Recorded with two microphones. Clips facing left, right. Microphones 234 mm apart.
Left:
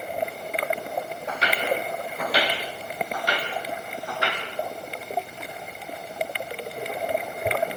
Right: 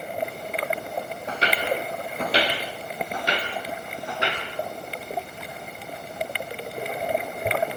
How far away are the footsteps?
About 6 m.